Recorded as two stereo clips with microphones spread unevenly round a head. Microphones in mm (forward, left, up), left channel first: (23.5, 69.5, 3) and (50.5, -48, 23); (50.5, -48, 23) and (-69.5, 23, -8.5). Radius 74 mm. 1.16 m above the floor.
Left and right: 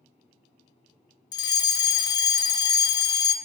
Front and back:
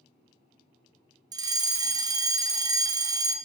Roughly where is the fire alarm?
Behind left.